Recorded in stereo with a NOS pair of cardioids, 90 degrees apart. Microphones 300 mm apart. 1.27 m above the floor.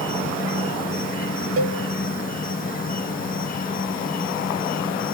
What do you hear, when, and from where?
0.0 s an insect: 30° left, 1.0 m
1.6 s a cowbell: 50° right, 0.9 m